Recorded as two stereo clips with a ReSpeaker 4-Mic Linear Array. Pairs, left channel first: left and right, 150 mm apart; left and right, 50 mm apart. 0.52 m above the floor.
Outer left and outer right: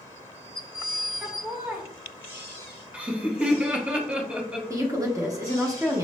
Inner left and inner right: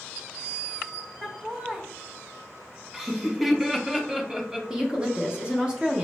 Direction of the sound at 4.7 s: 20° right (ahead or behind).